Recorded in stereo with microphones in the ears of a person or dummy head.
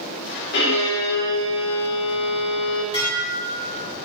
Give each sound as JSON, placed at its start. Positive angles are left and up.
{"t": 0.5, "sound": "a violin", "side_deg": 55, "distance_m": 2.5}
{"t": 2.9, "sound": "dishes clattering", "side_deg": 25, "distance_m": 3.0}